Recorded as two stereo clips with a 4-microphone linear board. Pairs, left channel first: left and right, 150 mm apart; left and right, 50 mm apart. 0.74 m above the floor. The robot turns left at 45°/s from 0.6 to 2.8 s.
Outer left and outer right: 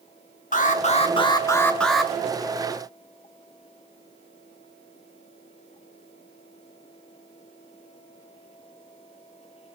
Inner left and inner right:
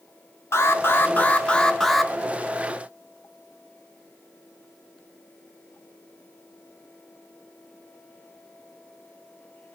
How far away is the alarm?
About 0.8 m.